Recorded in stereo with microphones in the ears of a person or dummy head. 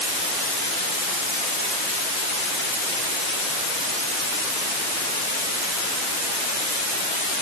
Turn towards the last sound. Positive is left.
No sound to turn to.